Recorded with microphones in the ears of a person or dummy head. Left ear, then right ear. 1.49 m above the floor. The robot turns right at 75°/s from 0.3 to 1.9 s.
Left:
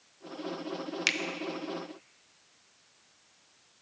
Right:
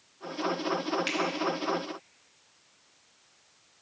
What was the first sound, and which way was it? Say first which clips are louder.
A finger snap: left 3 dB; 30° left (ahead or behind).